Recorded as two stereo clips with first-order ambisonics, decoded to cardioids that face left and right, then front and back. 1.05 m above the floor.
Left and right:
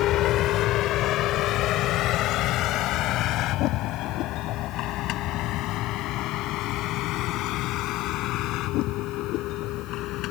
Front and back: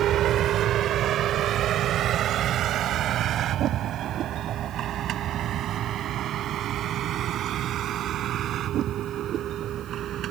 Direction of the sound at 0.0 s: 130° left.